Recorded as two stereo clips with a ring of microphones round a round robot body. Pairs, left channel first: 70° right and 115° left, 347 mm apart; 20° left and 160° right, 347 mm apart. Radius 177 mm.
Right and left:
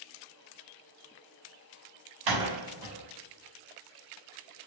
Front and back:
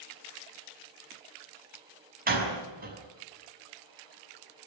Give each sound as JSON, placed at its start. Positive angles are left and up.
{"t": 2.3, "sound": "a door slam", "azimuth_deg": 135, "distance_m": 5.5}